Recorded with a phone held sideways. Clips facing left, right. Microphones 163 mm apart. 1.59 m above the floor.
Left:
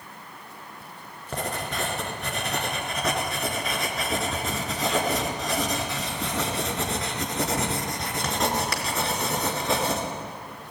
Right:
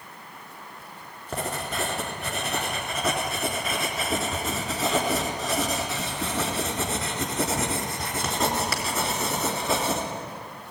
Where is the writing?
5° right (ahead or behind), 3.5 m.